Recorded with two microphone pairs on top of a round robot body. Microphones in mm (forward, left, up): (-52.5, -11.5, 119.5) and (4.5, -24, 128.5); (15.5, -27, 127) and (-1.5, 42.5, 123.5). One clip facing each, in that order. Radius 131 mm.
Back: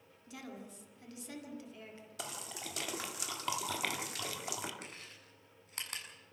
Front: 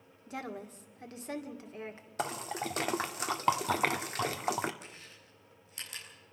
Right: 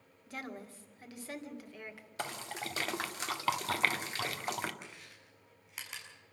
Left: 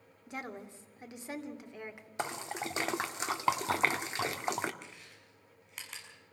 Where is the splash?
35° left, 1.6 m.